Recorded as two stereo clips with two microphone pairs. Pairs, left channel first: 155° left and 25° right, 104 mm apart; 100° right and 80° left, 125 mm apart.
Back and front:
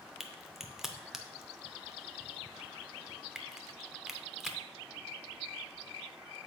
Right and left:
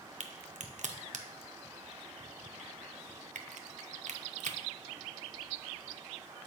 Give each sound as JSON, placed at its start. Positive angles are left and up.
{"t": 0.2, "sound": "a crack", "azimuth_deg": 60, "distance_m": 0.5}